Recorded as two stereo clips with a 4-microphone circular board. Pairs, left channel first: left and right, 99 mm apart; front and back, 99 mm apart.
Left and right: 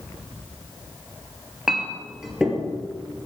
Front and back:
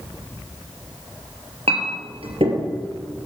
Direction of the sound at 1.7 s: 175° right.